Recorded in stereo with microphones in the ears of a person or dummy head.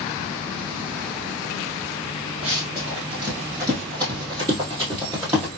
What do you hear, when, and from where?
2.4 s running footsteps: 20° right (ahead or behind), 1.5 m; by 5.5 s 15° right (ahead or behind), 1.8 m